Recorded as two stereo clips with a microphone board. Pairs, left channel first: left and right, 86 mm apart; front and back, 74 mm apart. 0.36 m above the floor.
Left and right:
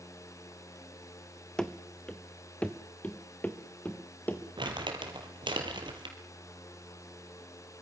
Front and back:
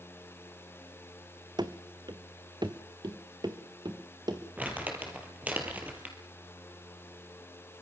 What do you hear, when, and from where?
1.6 s running footsteps: 175° left, 1.2 m; by 4.4 s 160° left, 2.5 m
4.6 s crumpling: 110° right, 3.5 m